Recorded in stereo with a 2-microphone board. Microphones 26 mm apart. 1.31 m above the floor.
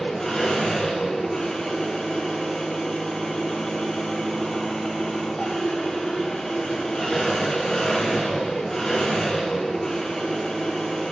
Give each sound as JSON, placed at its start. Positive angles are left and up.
{"t": 0.0, "sound": "an engine running", "side_deg": 25, "distance_m": 6.0}